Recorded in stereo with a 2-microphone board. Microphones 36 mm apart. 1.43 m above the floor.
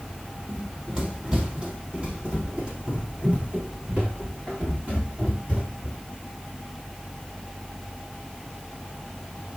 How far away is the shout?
I don't hear a shout.